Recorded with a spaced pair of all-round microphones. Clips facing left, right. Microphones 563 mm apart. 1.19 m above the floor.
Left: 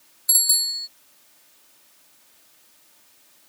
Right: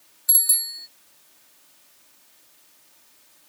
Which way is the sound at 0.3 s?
75° right (ahead or behind).